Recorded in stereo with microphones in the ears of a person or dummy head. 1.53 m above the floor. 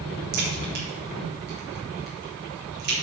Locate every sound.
0.3 s a crack: 50° right (ahead or behind), 2.5 m